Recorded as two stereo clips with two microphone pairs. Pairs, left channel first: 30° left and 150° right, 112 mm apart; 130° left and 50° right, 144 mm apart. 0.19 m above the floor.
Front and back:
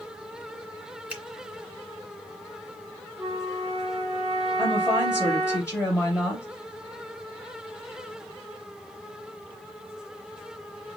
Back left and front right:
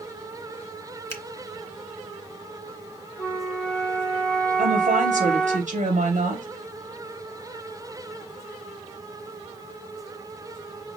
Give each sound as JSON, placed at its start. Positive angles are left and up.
{"t": 1.1, "sound": "a finger snap", "azimuth_deg": 155, "distance_m": 1.3}
{"t": 3.2, "sound": "a flute", "azimuth_deg": -150, "distance_m": 1.3}
{"t": 4.6, "sound": "a woman speaking", "azimuth_deg": -75, "distance_m": 3.5}